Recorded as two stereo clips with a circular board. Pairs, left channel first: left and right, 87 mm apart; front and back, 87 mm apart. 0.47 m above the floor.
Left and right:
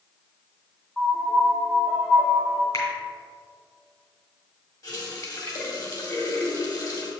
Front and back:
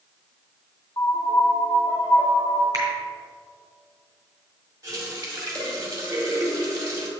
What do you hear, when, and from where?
1.0 s a piano: 15° left, 1.6 m
2.7 s a finger snap: 130° left, 3 m
4.8 s a running tap: 130° left, 1.9 m